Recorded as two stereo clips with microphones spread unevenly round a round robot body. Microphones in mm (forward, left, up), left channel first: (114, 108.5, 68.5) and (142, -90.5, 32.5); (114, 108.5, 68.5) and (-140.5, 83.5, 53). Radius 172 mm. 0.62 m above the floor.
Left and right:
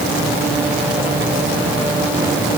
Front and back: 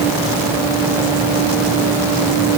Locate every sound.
Only background noise.